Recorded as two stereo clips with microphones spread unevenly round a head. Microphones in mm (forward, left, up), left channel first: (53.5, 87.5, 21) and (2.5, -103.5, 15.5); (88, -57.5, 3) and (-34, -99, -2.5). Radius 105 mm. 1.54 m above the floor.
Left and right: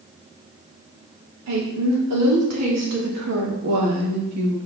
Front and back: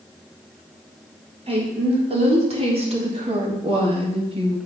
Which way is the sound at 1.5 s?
120° right.